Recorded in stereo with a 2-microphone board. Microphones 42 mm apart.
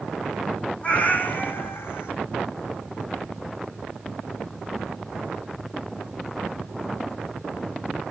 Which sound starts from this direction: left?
A cat meowing, at 0.8 s.